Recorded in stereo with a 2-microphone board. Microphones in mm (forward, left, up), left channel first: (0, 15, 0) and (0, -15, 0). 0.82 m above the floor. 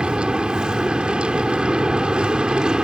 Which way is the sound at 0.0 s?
25° right (ahead or behind).